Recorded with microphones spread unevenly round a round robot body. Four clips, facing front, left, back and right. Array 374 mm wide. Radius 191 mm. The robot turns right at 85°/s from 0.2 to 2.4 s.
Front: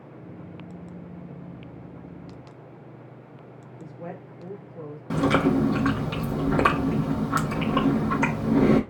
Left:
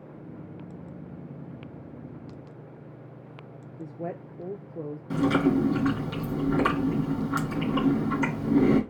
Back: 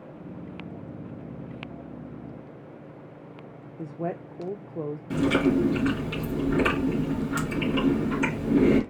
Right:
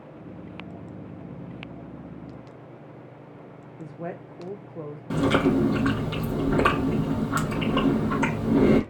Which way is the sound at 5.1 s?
25° right.